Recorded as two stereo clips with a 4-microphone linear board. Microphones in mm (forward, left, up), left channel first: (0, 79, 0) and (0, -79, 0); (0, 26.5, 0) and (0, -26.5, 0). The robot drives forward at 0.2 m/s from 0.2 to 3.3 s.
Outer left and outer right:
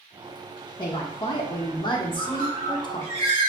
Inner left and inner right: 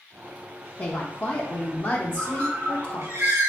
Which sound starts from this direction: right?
A bird, at 2.2 s.